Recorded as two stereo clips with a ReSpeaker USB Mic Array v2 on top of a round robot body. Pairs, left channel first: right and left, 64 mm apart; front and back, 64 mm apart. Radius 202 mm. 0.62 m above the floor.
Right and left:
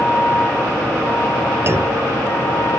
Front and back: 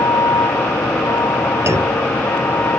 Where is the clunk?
135° left.